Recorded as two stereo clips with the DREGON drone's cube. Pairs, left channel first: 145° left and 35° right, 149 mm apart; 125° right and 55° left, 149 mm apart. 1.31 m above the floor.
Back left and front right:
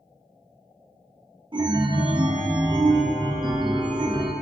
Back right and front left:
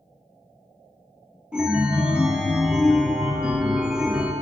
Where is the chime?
25° right, 0.6 m.